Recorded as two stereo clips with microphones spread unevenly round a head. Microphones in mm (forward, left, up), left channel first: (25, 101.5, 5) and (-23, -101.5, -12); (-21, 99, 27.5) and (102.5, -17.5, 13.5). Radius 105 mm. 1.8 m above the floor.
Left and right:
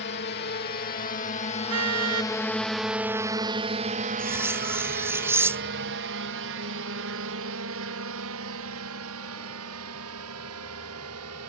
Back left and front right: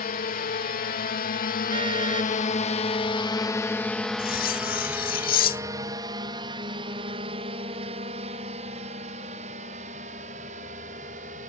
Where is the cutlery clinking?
175° left.